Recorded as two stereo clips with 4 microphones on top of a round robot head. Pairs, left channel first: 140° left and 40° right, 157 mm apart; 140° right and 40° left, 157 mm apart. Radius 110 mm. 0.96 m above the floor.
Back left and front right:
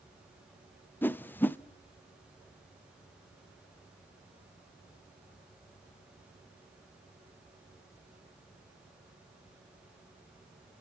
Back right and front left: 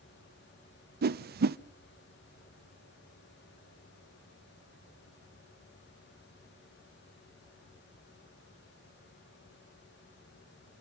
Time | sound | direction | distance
1.0 | a whoosh | 60° left | 0.6 m